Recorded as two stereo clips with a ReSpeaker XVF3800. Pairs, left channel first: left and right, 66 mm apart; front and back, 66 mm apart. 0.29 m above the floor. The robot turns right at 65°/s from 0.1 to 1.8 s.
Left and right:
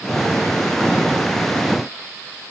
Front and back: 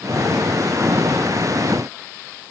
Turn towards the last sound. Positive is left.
No sound to turn to.